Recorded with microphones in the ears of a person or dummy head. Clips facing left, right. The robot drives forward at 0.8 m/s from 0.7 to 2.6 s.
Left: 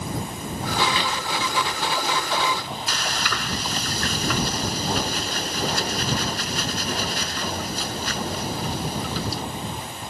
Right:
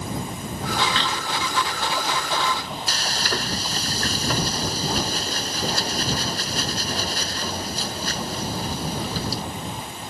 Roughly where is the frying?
Right.